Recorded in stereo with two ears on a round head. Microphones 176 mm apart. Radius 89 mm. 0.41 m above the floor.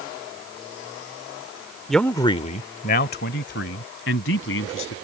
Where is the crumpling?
I don't hear crumpling.